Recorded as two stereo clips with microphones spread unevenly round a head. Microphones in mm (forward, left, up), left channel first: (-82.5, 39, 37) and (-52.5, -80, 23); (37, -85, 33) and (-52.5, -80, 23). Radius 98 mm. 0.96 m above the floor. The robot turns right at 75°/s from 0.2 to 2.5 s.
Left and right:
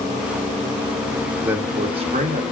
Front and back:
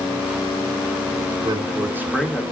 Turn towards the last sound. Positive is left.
turn(degrees=-75)